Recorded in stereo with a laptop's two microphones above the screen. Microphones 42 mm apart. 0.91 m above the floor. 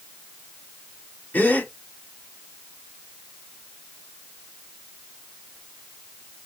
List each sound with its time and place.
1.3 s a gasp: 45° left (ahead or behind), 2.0 m